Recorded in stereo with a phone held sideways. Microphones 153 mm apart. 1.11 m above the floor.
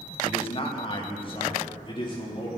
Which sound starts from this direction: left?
A man speaking, at 0.2 s.